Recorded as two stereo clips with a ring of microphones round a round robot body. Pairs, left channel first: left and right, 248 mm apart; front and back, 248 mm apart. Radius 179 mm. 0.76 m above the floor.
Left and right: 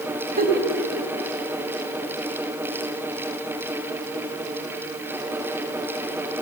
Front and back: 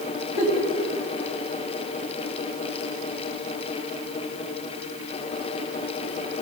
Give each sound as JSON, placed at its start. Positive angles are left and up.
{"t": 0.4, "sound": "a giggle", "azimuth_deg": -35, "distance_m": 2.5}